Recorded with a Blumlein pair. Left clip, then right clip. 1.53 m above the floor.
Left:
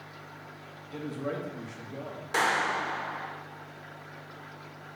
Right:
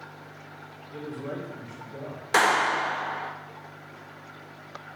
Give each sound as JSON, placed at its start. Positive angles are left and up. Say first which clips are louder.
{"t": 0.9, "sound": "a man speaking", "louder": "left 1 dB", "azimuth_deg": 25, "distance_m": 2.0}
{"t": 2.3, "sound": "a clap", "louder": "right 5 dB", "azimuth_deg": -65, "distance_m": 0.9}